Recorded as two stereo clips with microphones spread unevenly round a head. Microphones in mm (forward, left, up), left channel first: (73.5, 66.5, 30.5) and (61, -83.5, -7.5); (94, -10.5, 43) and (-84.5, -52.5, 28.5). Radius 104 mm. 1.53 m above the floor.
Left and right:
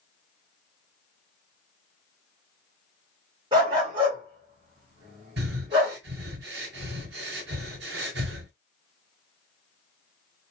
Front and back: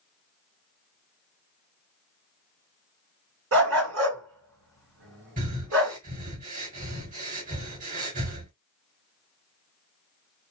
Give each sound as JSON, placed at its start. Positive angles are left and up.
{"t": 3.5, "sound": "a dog barking", "azimuth_deg": -170, "distance_m": 1.9}
{"t": 5.4, "sound": "breathing", "azimuth_deg": -125, "distance_m": 2.5}